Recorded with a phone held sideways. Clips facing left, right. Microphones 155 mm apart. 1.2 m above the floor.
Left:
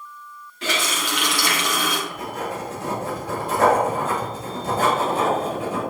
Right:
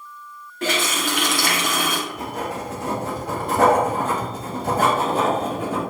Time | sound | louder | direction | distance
0.6 | a running tap | right 3 dB | 50° right (ahead or behind) | 1.6 m
2.1 | writing | right 1 dB | 60° right (ahead or behind) | 2.5 m